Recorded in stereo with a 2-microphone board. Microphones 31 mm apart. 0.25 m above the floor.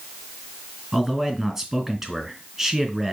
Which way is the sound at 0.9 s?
5° right (ahead or behind).